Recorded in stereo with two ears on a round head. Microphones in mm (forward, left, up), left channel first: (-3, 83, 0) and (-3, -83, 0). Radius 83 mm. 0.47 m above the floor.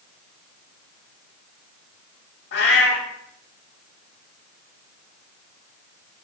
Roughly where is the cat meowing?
Left.